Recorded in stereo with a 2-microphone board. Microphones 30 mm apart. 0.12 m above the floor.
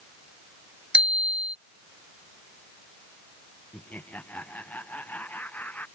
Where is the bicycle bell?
40° right (ahead or behind).